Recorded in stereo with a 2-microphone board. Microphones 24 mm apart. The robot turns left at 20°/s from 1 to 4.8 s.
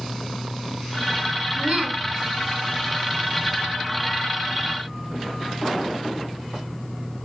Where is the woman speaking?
35° right (ahead or behind), 3 m; by 2.0 s 40° right (ahead or behind), 3 m.